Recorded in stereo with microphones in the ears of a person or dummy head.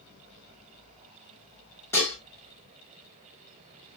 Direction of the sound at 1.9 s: 10° left (ahead or behind).